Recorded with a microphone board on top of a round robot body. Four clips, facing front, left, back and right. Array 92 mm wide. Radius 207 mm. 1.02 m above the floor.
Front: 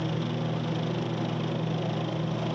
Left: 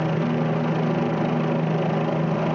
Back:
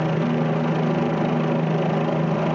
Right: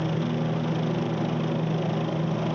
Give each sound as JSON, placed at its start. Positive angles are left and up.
{"t": 0.0, "sound": "a helicopter", "azimuth_deg": 145}